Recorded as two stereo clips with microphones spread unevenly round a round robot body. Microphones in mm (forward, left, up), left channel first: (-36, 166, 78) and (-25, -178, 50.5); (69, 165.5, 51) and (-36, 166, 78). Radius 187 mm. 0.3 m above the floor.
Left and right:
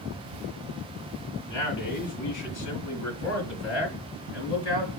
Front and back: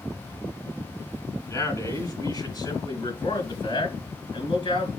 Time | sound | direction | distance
1.5 | a man speaking | 60° left | 2.5 m